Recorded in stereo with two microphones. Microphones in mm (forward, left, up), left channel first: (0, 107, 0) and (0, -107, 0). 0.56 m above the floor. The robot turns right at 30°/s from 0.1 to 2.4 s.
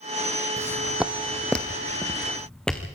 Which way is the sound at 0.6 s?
15° right (ahead or behind).